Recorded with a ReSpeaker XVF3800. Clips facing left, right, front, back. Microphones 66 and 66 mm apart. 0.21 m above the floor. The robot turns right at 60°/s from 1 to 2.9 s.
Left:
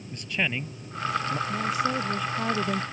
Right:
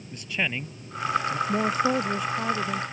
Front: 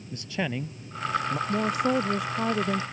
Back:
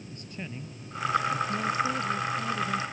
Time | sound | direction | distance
0.1 | a man speaking | straight ahead | ?
1.5 | a woman speaking | 55° right | ?